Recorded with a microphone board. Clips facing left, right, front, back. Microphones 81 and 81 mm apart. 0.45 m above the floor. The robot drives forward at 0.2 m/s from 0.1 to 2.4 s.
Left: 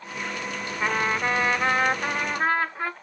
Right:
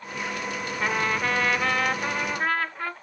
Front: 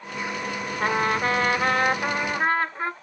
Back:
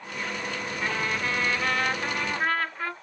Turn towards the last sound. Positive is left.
turn(degrees=45)